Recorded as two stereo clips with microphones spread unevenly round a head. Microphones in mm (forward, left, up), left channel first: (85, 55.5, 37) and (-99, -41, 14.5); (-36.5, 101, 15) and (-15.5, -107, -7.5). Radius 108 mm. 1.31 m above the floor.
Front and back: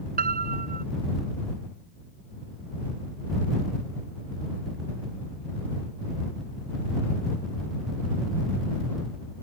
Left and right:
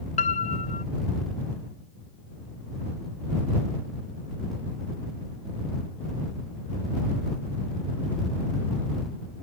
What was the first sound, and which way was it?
A piano, 155° left.